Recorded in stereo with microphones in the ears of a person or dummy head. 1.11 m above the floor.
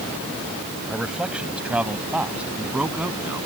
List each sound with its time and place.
0.9 s a man speaking: 5° right (ahead or behind); by 3.5 s 10° right (ahead or behind)